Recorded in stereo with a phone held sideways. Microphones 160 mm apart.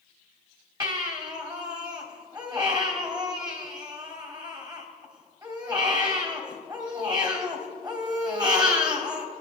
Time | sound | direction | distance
0.8 | a baby crying | 25° right (ahead or behind) | 2.5 m